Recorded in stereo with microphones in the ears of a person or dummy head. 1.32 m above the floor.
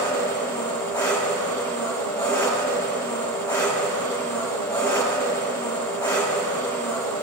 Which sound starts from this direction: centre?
An engine running, at 0.0 s.